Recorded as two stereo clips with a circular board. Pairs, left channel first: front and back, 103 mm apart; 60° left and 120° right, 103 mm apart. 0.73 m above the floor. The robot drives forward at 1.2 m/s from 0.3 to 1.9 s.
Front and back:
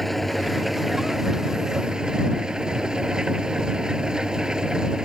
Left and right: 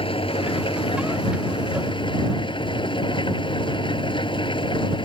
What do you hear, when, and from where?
0.0 s an engine running: 90° left; by 5.0 s 95° left